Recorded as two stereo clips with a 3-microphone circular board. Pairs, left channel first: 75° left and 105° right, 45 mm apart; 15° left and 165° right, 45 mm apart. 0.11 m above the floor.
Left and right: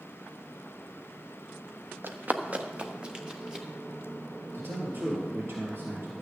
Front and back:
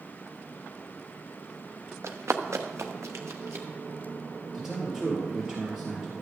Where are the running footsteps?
145° right, 1.1 m; by 3.6 s 175° left, 2.5 m.